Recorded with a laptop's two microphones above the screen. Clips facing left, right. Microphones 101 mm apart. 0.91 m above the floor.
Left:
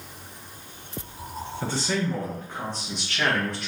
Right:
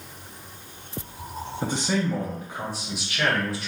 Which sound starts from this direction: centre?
A man speaking, at 1.6 s.